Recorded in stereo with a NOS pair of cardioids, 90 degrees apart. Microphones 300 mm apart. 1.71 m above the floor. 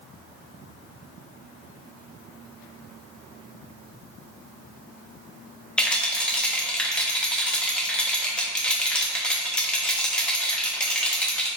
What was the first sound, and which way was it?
A rattle, 5° left.